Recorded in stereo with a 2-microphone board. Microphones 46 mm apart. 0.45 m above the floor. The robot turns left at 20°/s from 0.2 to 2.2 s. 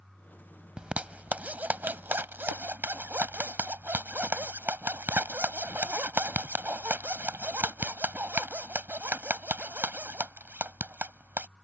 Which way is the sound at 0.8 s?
25° right (ahead or behind).